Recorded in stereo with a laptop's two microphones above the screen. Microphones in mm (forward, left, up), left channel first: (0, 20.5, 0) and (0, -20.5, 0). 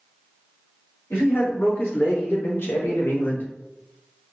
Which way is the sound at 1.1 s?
75° left (ahead or behind).